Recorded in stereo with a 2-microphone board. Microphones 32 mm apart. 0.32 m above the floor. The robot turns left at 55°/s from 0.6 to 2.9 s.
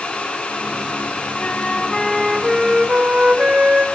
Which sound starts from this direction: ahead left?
A flute, at 1.4 s.